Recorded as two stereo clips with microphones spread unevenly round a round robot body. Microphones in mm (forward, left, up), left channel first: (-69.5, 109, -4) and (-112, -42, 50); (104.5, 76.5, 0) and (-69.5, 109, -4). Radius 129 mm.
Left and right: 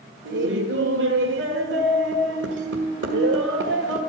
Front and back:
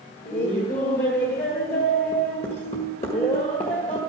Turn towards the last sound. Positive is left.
turn(degrees=-80)